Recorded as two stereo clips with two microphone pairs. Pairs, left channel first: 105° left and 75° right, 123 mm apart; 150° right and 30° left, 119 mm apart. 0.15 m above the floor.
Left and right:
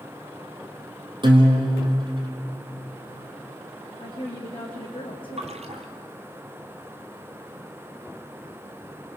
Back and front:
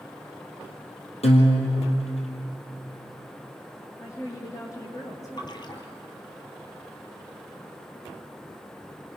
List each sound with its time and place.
1.2 s a guitar: 125° right, 3 m
4.0 s a woman speaking: 150° left, 6 m
5.4 s a splash: 100° right, 1.6 m